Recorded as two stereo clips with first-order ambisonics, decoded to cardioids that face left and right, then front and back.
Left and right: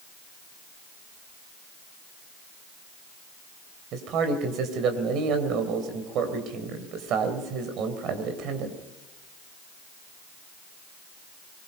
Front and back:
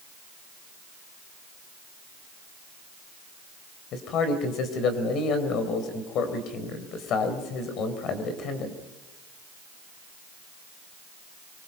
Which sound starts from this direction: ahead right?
A man speaking, at 3.9 s.